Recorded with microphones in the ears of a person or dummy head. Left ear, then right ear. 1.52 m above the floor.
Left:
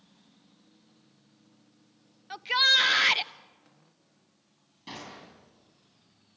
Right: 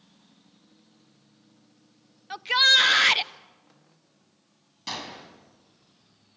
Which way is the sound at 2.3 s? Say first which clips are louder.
Right 4 dB; 5° right (ahead or behind).